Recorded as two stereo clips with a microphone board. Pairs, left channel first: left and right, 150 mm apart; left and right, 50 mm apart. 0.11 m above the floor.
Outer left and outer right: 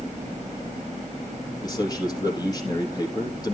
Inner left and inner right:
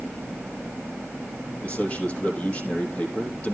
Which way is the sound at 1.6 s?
30° left (ahead or behind).